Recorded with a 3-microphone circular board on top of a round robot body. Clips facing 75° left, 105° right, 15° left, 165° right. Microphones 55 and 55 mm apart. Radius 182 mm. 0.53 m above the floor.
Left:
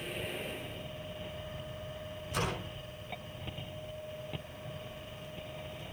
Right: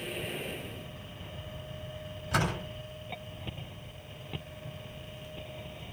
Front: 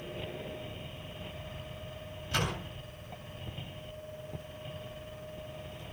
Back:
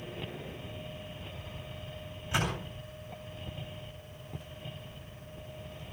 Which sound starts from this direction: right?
A door slam, at 2.3 s.